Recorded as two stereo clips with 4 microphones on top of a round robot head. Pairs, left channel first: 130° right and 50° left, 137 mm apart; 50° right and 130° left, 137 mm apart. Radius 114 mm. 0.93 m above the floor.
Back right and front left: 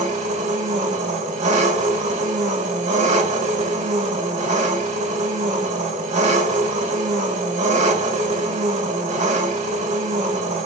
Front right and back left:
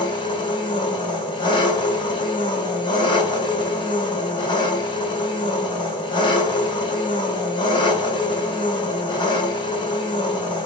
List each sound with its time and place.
0.0 s an engine running: 10° left, 1.9 m